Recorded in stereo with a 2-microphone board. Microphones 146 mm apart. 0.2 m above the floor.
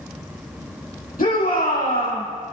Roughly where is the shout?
Left.